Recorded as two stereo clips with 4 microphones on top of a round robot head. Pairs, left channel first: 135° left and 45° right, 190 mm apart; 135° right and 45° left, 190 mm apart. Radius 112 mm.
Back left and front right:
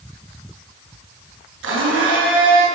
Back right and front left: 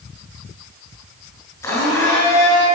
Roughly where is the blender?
Ahead right.